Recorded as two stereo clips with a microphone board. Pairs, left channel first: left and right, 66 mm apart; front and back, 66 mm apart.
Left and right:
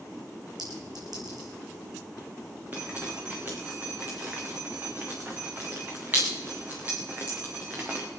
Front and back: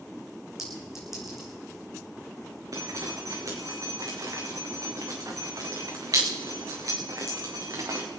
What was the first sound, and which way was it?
A clink, 95° right.